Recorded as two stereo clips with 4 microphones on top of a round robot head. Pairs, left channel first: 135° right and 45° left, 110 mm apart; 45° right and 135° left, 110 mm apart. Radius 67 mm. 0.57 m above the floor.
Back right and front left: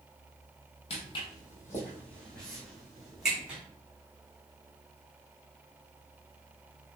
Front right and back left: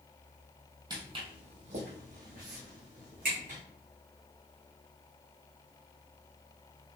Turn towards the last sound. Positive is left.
turn(degrees=125)